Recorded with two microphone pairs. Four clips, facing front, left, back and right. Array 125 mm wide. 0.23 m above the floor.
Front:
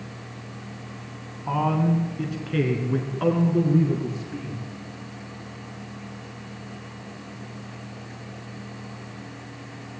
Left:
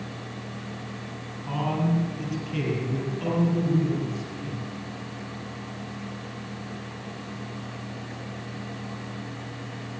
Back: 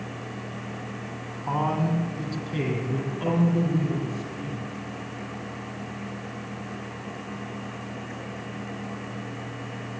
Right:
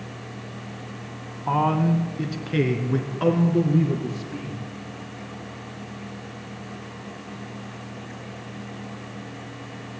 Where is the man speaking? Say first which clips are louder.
Right 6 dB, front 3 dB; 95° right, 3 m; by 4.6 s 50° right, 6 m.